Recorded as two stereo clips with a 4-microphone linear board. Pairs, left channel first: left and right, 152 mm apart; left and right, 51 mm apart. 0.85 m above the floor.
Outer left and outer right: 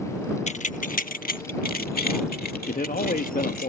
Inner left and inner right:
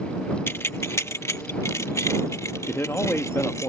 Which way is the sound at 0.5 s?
50° left (ahead or behind).